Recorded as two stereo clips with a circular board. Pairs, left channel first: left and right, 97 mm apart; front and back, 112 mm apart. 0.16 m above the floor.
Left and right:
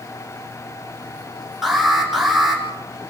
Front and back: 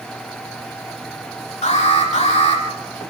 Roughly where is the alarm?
Ahead.